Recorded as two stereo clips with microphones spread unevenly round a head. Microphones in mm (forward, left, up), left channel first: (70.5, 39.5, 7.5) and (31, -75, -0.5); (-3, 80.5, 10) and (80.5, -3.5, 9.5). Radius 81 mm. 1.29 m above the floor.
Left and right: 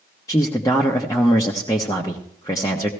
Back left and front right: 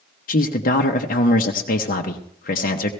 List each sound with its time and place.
0.3 s a man speaking: 140° left, 1.0 m